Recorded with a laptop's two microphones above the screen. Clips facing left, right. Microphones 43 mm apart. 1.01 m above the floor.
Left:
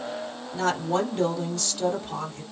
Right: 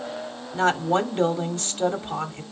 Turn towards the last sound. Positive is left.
turn(degrees=-35)  # may be behind; listen again after turning